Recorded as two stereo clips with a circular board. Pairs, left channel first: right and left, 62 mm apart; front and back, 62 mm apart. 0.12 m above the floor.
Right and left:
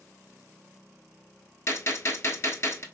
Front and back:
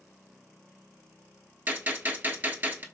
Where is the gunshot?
125° right, 0.5 m.